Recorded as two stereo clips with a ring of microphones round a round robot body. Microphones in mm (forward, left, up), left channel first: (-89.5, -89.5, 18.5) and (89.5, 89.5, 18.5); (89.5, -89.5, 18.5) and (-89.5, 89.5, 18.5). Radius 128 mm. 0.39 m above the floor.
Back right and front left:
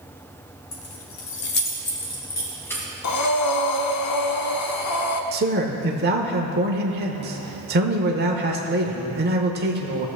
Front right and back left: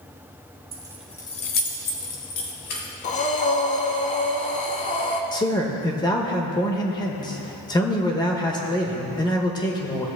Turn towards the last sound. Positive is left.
turn(degrees=20)